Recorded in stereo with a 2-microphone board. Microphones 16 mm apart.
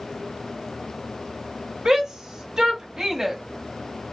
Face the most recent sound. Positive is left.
turn(degrees=-35)  # may be behind; listen again after turning